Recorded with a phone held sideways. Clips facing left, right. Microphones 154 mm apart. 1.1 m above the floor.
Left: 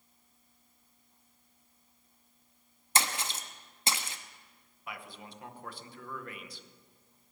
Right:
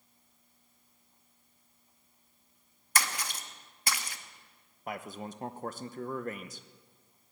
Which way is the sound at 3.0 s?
25° left (ahead or behind).